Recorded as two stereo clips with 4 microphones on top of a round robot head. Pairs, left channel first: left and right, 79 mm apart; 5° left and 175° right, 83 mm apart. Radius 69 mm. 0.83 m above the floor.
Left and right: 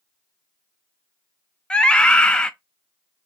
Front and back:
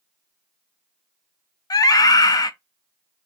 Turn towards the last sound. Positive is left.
turn(degrees=15)